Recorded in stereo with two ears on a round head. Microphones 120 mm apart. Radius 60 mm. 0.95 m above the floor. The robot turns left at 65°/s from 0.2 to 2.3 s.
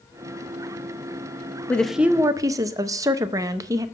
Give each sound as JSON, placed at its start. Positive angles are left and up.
{"t": 1.7, "sound": "a woman speaking", "azimuth_deg": 15, "distance_m": 0.6}